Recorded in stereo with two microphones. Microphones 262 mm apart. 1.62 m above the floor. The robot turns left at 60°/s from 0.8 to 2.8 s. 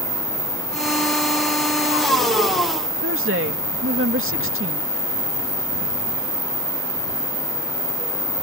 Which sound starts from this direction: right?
A woman speaking, at 3.0 s.